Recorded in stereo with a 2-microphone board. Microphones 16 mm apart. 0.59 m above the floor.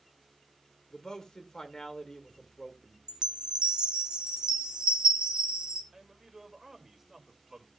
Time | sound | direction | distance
0.9 | a man speaking | 45° left (ahead or behind) | 1.8 m
3.1 | a chime | 65° right (ahead or behind) | 1.6 m
5.9 | a man speaking | 15° right (ahead or behind) | 2 m